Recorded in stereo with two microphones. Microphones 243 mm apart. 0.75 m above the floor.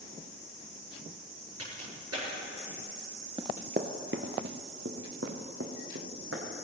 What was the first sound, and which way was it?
A crack, 80° right.